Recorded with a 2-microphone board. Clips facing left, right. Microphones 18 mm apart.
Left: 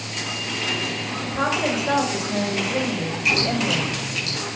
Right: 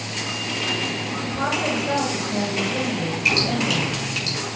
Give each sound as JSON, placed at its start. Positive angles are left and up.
{"t": 1.2, "sound": "a woman speaking", "side_deg": 25, "distance_m": 2.5}
{"t": 3.2, "sound": "dripping", "side_deg": -10, "distance_m": 4.5}